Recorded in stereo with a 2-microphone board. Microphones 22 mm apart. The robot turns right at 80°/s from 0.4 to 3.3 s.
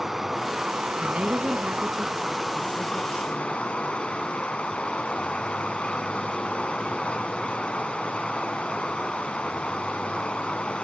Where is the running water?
165° right, 1.3 m; by 10.8 s 70° left, 1.3 m.